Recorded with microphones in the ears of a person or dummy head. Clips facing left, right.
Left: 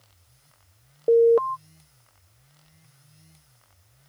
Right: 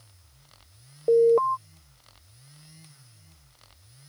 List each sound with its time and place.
1.1 s an alarm: 15° left (ahead or behind)